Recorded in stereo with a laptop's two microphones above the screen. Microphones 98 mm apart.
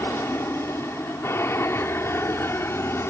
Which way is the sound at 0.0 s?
25° left (ahead or behind).